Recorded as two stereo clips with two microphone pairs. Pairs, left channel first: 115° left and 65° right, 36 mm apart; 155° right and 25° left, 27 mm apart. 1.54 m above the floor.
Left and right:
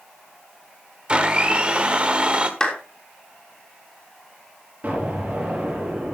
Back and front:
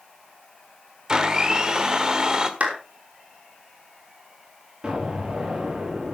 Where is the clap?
45° left, 3.5 m.